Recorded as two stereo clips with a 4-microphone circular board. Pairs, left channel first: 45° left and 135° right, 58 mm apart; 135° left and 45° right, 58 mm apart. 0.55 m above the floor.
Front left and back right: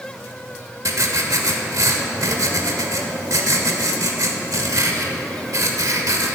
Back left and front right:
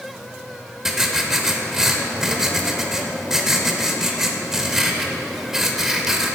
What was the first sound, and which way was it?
Writing, 125° right.